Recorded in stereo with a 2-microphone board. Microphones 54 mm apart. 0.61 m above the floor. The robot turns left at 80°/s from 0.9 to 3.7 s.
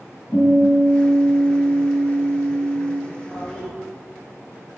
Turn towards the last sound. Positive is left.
turn(degrees=150)